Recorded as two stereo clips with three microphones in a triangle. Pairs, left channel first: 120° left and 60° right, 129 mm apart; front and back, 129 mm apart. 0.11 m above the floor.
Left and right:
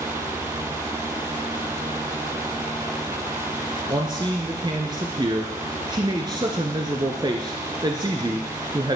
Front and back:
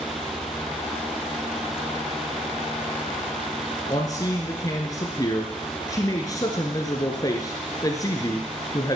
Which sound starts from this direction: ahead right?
A man speaking, at 3.9 s.